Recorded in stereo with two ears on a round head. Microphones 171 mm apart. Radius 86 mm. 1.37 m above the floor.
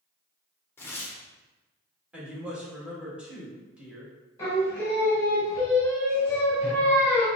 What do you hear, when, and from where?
0.8 s tearing paper: 10° left (ahead or behind), 0.8 m
2.1 s a woman speaking: 5° right (ahead or behind), 1.5 m
4.4 s singing: 15° left (ahead or behind), 1.8 m